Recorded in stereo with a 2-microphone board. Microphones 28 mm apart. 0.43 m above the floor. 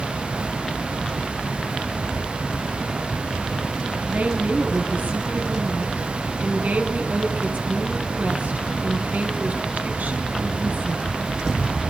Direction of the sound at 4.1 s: 70° right (ahead or behind).